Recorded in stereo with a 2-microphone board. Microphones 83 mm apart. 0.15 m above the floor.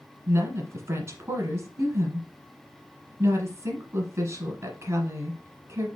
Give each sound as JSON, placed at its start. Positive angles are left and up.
{"t": 0.3, "sound": "a woman speaking", "side_deg": -35, "distance_m": 1.4}